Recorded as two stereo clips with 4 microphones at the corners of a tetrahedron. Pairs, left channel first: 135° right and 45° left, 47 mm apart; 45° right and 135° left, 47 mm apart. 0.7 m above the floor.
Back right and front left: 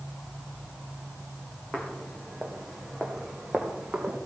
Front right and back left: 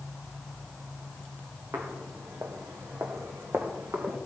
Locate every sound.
1.7 s footsteps: 150° left, 2 m; by 4.2 s 115° left, 3 m